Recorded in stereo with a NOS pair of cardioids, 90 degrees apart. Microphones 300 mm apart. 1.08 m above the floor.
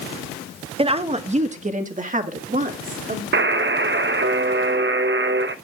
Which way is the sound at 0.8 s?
20° right.